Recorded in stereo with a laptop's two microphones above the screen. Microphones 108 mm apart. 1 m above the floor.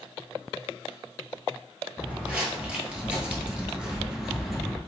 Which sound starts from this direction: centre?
Footsteps, at 2.0 s.